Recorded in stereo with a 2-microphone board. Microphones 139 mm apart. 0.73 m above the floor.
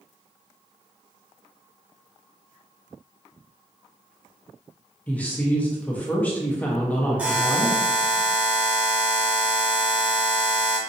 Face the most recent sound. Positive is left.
turn(degrees=-10)  # may be behind; listen again after turning